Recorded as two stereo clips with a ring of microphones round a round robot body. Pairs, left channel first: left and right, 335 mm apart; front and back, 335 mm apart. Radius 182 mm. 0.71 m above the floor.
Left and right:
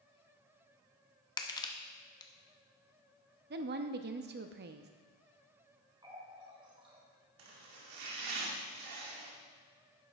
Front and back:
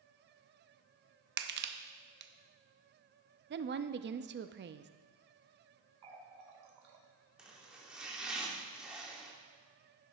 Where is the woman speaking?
135° right, 0.6 m.